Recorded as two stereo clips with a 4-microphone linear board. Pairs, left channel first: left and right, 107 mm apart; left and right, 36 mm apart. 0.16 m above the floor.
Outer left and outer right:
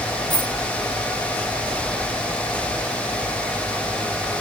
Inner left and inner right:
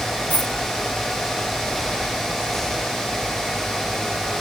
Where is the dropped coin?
40° left (ahead or behind), 2.5 m.